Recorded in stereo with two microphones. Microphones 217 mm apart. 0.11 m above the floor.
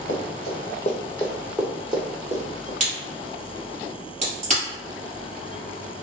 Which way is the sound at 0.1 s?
65° left (ahead or behind).